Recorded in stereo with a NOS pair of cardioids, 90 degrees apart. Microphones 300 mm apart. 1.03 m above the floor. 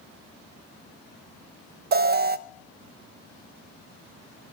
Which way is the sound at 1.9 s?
35° right.